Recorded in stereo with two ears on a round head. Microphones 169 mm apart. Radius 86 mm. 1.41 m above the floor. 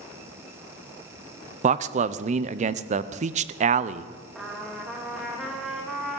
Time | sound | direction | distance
1.6 | a man speaking | 40° right (ahead or behind) | 0.5 m
4.3 | a trumpet | centre (ahead or behind) | 1.8 m